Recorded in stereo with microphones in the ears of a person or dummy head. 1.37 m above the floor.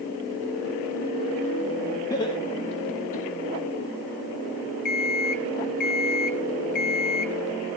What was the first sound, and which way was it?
Laughter, 20° left (ahead or behind).